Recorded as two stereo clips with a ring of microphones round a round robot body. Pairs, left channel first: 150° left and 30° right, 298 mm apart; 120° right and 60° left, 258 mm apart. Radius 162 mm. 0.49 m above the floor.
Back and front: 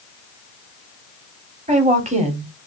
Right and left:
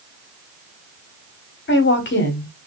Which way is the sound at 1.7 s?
90° right.